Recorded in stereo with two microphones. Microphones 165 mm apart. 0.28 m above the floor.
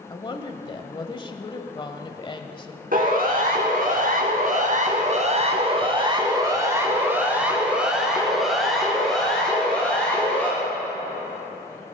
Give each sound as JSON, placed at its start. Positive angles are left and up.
{"t": 0.1, "sound": "a woman speaking", "side_deg": 30, "distance_m": 1.2}
{"t": 2.9, "sound": "a siren", "side_deg": -60, "distance_m": 3.0}